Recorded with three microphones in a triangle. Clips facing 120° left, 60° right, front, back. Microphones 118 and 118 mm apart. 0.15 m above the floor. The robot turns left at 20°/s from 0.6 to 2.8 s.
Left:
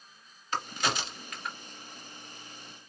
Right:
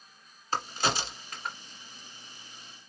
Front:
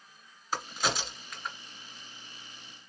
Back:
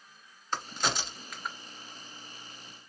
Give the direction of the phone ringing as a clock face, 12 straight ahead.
I don't hear a phone ringing.